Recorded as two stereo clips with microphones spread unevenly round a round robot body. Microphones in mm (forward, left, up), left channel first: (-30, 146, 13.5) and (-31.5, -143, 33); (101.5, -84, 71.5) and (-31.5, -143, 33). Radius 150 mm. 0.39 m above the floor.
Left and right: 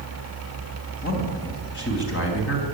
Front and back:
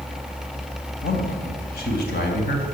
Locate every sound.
1.0 s a man speaking: 35° left, 3.5 m; by 2.6 s 50° left, 3.5 m